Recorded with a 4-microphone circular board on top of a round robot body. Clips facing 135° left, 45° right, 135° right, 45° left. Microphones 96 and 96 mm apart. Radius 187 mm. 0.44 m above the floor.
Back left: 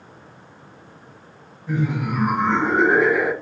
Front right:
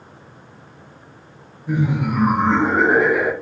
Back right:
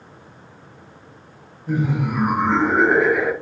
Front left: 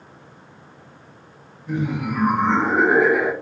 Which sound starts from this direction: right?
Laughter, at 1.7 s.